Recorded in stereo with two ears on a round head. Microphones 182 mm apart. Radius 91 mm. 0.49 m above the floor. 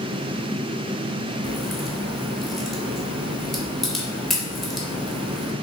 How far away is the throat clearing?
I don't hear throat clearing.